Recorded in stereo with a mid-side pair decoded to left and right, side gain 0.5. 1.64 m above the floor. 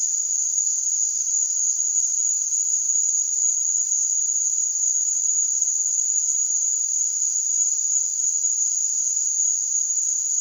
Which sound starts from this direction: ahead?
An insect, at 0.0 s.